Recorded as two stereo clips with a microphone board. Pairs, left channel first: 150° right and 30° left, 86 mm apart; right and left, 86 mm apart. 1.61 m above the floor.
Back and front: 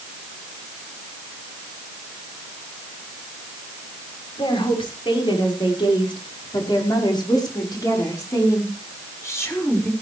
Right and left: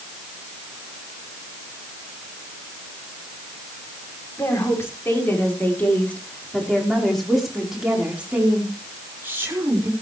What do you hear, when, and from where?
4.4 s a woman speaking: 145° right, 6 m; by 9.9 s 145° left, 6 m